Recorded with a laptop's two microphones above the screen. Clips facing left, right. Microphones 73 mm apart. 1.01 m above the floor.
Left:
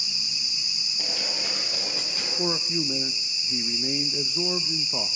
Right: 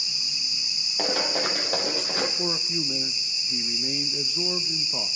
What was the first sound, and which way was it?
Running footsteps, 65° right (ahead or behind).